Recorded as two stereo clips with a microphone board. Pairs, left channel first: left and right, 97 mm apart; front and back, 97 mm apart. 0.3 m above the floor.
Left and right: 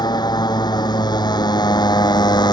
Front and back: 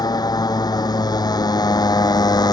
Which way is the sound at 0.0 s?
45° left.